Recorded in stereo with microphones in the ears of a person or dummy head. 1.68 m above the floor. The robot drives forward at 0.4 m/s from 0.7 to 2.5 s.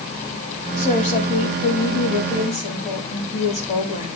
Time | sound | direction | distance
0.8 | a woman speaking | 35° left (ahead or behind) | 2 m